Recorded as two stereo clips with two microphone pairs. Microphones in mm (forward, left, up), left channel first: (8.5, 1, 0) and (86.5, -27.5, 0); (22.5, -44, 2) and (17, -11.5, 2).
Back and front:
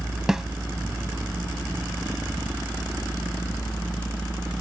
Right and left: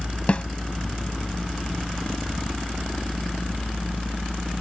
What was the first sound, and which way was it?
A snare drum, 95° right.